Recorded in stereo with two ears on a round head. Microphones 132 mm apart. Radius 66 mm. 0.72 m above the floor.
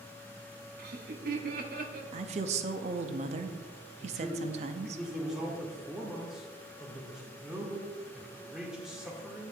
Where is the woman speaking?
45° right (ahead or behind), 0.7 m.